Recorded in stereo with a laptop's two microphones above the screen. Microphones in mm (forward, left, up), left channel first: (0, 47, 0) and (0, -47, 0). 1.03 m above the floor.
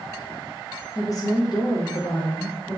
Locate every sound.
0.9 s a woman speaking: 30° left (ahead or behind), 0.6 m; by 2.8 s 75° left (ahead or behind), 1.3 m